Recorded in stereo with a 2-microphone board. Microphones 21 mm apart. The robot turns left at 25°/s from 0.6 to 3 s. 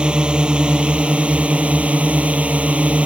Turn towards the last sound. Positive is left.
turn(degrees=-105)